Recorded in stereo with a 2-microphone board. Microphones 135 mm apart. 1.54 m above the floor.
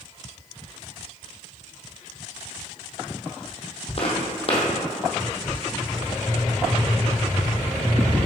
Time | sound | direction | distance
4.0 | footsteps | 45° left (ahead or behind) | 2 m